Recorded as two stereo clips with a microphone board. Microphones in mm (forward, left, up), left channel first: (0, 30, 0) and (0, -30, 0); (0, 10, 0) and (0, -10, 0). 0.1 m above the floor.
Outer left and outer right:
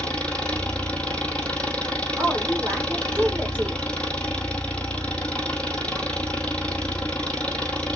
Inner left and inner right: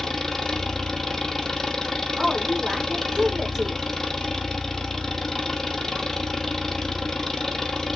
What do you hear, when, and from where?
0.0 s an engine running: 20° left (ahead or behind), 1.2 m
2.2 s a woman speaking: 20° right (ahead or behind), 4.5 m